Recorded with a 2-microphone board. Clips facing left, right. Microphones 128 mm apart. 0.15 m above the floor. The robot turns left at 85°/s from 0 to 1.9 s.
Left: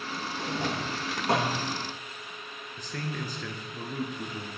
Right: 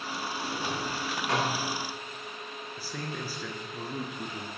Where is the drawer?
65° left (ahead or behind), 4 m; by 1.6 s 10° left (ahead or behind), 4 m.